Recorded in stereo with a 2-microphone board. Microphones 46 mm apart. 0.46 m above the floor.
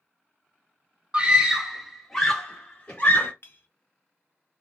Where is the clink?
50° left (ahead or behind), 0.5 m.